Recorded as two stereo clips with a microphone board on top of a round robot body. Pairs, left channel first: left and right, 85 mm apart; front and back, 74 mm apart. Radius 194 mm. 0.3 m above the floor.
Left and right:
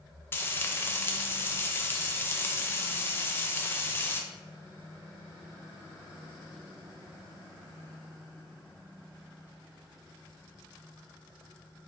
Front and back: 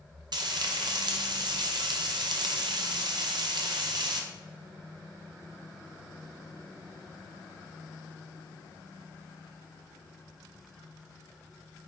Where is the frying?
155° left, 0.6 m.